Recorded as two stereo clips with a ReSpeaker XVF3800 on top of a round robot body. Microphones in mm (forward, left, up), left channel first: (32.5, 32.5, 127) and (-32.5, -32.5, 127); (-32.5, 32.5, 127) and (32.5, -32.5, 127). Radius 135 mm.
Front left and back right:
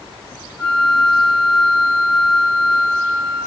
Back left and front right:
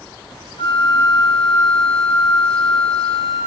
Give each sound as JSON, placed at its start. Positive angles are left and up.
{"t": 0.6, "sound": "a flute", "azimuth_deg": 155, "distance_m": 1.7}